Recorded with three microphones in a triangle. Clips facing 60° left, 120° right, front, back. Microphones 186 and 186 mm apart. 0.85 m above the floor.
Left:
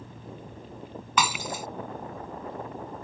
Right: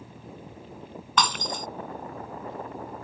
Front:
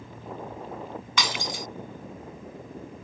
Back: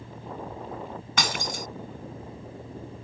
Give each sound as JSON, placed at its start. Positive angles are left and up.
{"t": 1.2, "sound": "breaking glass", "azimuth_deg": 145}